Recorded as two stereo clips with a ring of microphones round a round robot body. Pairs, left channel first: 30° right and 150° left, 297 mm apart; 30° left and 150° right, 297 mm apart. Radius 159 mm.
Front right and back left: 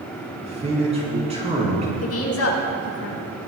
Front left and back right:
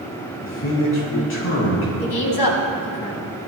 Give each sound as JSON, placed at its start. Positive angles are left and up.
{"t": 0.4, "sound": "a man speaking", "azimuth_deg": 80, "distance_m": 7.0}
{"t": 2.0, "sound": "a woman speaking", "azimuth_deg": 15, "distance_m": 4.5}